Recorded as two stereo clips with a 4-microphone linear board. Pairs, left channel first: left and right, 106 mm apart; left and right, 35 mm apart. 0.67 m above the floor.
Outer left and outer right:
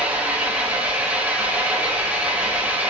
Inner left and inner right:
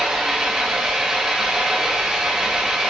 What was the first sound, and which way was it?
An engine running, 15° right (ahead or behind).